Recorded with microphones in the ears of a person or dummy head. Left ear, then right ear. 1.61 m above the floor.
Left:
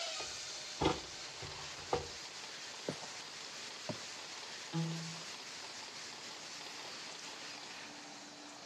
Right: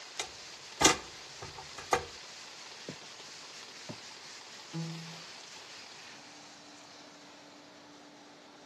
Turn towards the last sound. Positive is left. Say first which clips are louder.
# even
turn(degrees=5)  # may be behind; listen again after turning